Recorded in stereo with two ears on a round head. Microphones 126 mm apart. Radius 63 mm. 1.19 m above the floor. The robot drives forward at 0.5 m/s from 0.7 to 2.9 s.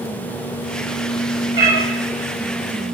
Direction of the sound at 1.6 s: 25° right (ahead or behind).